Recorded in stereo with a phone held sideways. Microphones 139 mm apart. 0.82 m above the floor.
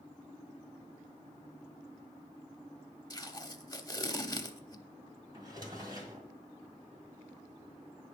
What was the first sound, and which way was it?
Tape being pulled, 25° left (ahead or behind).